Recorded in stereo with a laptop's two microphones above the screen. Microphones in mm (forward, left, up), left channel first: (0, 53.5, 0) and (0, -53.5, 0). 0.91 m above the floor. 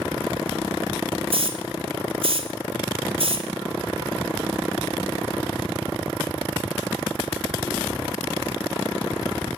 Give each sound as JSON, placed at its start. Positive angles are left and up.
{"t": 1.3, "sound": "a hiss", "side_deg": -60, "distance_m": 1.9}